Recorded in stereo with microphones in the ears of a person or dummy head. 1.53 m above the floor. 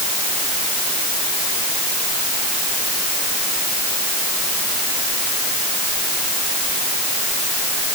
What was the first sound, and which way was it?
Only background noise.